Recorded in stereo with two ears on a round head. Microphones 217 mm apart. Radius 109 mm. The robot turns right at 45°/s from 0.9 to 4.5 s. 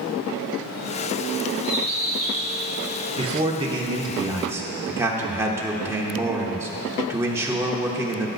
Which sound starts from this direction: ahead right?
A bird, at 1.6 s.